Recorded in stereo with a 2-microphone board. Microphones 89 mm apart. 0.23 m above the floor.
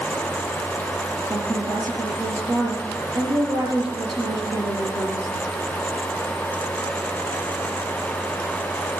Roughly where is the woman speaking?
Right.